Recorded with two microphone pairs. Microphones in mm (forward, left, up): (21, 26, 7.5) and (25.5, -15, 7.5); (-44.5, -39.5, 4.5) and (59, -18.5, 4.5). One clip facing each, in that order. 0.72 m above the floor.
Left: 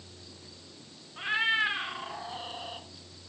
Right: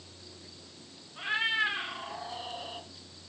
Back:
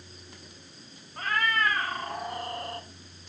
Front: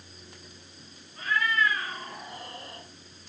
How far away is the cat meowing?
About 1.2 m.